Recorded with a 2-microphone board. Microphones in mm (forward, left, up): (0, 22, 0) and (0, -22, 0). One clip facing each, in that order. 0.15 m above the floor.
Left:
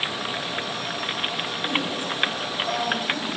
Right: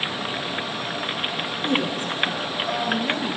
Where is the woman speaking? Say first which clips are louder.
Right 3 dB; 50° right (ahead or behind), 2 m; by 3.4 s 60° right (ahead or behind), 3 m.